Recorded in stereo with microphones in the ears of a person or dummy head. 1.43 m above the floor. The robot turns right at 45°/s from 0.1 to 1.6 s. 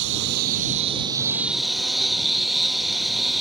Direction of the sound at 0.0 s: 65° right.